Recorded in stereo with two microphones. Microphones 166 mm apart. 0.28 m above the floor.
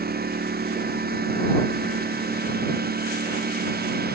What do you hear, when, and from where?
0.0 s a lawn mower: 85° right; by 4.2 s 90° right